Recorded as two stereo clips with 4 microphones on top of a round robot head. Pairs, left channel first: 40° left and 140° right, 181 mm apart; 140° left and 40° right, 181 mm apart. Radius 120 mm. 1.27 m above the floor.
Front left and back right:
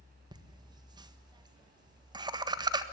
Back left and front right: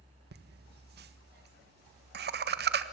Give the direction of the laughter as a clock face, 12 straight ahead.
2 o'clock.